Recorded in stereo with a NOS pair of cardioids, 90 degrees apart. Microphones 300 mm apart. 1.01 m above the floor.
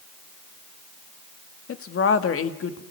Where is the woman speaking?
50° left, 2 m.